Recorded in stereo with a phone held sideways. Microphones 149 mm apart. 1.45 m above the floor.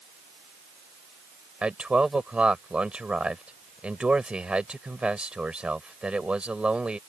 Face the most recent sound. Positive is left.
turn(degrees=-5)  # may be behind; listen again after turning